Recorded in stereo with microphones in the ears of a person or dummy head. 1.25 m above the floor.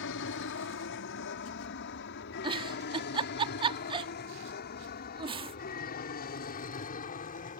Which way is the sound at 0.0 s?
60° left (ahead or behind).